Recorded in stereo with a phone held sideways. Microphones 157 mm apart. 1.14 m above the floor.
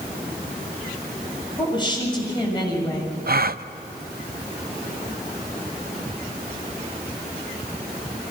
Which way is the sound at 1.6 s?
30° left (ahead or behind).